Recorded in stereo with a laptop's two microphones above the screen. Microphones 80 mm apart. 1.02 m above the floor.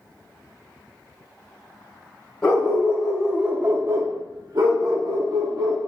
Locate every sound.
2.4 s a dog barking: 15° left (ahead or behind), 1.6 m; by 5.8 s 45° right (ahead or behind), 1.9 m